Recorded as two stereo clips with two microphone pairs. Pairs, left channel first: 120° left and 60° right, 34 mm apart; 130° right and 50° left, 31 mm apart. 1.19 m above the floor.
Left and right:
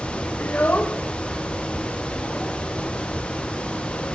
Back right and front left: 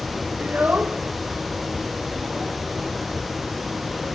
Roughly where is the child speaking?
Left.